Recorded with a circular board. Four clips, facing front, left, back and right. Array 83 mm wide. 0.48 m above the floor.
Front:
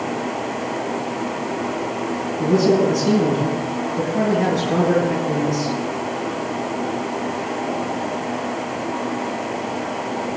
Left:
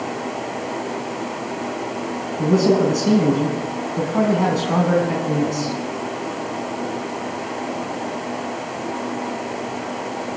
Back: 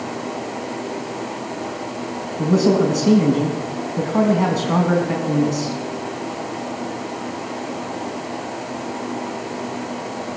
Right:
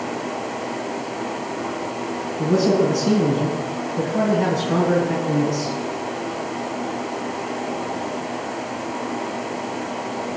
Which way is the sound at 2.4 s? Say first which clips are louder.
Left 2 dB, even; 150° left.